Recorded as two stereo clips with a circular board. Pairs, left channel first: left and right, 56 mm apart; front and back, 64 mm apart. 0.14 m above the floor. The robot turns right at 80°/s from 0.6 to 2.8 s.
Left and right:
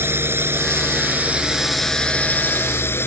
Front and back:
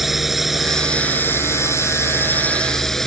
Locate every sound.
0.0 s a drone: 90° right; by 3.1 s 85° left